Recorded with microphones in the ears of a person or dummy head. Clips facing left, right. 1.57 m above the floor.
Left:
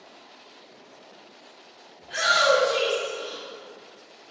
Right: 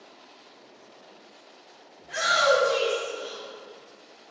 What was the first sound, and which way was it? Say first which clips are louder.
A shout: left 1 dB; 50° right (ahead or behind).